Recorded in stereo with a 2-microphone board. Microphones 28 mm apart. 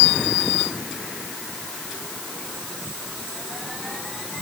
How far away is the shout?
No shout in this recording.